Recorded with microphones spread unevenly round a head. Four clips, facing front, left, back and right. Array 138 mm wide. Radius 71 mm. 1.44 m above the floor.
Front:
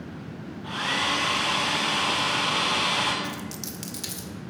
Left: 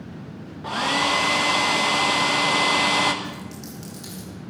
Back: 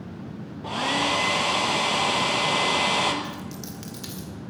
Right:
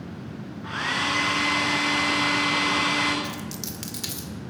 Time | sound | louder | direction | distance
0.6 | a hair dryer | left 5 dB, back 3 dB | 135° left | 1.3 m
3.2 | a dropped coin | right 1 dB, even | 70° right | 2 m